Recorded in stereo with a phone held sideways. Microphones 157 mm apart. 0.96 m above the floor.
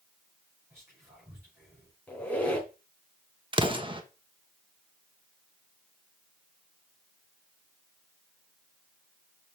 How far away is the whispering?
About 5 m.